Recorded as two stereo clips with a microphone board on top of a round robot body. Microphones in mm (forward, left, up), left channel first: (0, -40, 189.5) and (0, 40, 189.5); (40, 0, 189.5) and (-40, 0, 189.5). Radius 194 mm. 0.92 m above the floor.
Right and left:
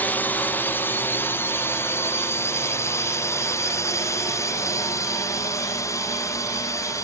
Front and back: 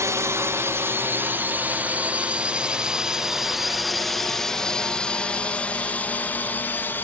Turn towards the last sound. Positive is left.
turn(degrees=-55)